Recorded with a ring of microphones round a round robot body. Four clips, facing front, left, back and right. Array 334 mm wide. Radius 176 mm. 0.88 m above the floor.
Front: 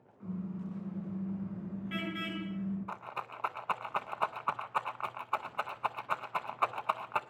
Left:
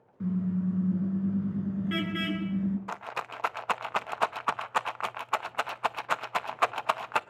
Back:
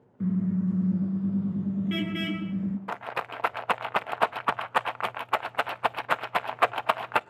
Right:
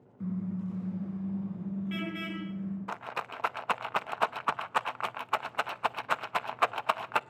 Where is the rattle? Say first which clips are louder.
Left 1 dB, back 8 dB; 175° right, 0.6 m.